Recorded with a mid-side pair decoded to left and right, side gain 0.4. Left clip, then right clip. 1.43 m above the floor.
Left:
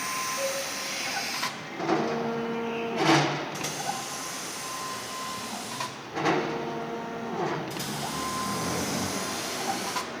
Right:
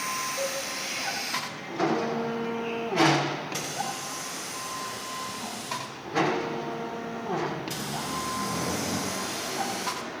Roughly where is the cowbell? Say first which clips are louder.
Even; ahead.